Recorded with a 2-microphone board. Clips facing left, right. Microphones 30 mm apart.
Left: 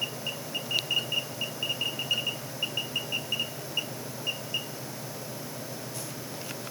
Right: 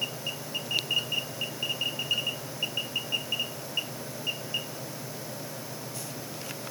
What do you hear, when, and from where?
Only background noise.